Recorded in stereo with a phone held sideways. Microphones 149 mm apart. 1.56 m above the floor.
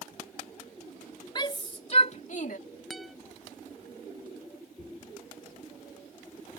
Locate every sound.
1.4 s a shout: 30° left (ahead or behind); by 2.6 s 60° left (ahead or behind)
2.9 s a guitar: centre (ahead or behind)